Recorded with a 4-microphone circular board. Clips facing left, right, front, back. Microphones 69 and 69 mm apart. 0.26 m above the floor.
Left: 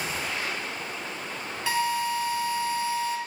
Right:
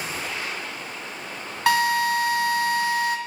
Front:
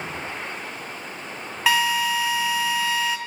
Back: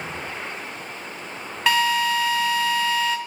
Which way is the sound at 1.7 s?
85° right.